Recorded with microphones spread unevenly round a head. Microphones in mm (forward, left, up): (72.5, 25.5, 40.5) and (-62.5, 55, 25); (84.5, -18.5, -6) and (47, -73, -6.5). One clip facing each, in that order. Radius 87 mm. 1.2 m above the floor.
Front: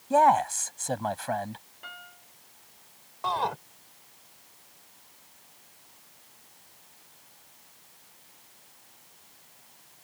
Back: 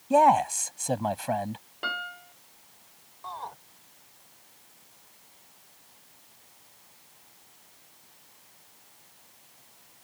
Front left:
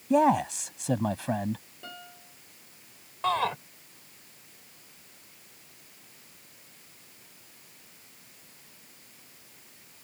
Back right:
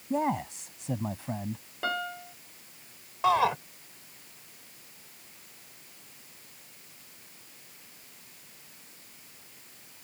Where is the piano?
Straight behind.